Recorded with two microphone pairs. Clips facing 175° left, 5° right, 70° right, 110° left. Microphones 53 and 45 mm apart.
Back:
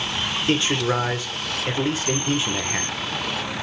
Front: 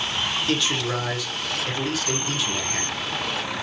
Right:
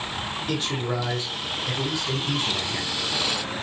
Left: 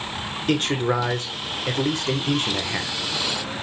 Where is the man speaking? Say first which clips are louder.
Back 6 dB, left 7 dB; 125° left, 1.8 m.